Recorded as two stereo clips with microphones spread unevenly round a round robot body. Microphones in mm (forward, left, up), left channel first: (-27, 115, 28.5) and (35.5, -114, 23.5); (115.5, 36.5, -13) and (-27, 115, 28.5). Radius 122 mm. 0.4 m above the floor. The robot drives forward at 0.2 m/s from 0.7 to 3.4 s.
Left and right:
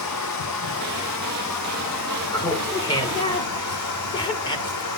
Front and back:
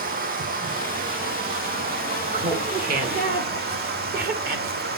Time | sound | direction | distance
0.0 | running water | 125° left | 2.5 m
2.3 | laughter | 165° left | 1.1 m